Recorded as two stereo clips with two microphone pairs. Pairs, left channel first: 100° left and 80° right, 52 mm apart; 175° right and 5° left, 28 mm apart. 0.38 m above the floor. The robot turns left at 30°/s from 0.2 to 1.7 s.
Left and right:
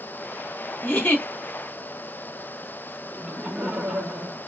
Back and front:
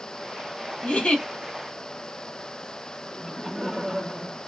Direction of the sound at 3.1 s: 60° right.